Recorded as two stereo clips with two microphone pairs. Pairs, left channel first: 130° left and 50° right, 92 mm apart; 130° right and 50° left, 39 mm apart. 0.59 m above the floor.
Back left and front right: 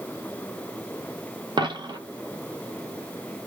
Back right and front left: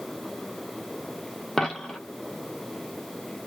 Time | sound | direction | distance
1.6 | a dropped coin | 50° right | 0.9 m